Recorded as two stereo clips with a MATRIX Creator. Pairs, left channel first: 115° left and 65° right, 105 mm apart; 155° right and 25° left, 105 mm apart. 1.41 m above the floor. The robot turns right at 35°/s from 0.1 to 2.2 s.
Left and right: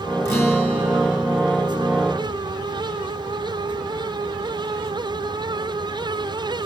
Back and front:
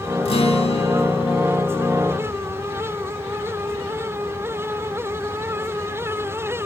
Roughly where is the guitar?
Behind.